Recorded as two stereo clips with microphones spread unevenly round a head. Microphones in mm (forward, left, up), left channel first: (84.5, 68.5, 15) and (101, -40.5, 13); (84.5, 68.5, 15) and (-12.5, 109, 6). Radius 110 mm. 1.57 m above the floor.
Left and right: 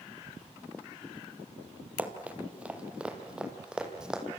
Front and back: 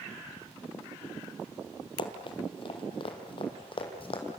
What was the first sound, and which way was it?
Running footsteps, 5° right.